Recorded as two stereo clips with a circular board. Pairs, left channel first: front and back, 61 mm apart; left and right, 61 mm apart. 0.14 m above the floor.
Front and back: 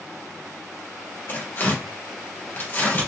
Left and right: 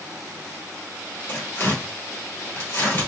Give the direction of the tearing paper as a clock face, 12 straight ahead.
11 o'clock.